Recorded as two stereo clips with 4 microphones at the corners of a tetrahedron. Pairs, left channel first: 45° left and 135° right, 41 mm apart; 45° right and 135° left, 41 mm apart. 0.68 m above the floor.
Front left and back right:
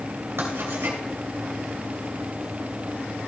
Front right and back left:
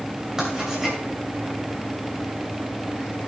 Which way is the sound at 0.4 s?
145° right.